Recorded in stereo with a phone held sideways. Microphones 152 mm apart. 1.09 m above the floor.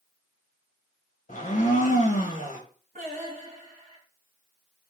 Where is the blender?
60° left (ahead or behind), 1.0 m.